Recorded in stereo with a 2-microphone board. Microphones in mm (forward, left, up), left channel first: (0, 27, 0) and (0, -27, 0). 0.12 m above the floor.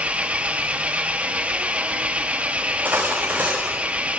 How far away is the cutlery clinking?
About 6.5 m.